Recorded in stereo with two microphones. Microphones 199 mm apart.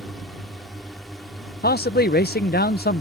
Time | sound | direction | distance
0.0 | a drone | centre (ahead or behind) | ?
1.6 | a man speaking | 50° left (ahead or behind) | ?